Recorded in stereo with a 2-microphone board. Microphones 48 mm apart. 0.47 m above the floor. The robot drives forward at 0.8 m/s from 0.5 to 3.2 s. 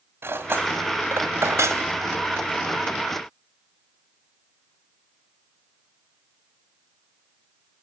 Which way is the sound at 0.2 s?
50° right (ahead or behind).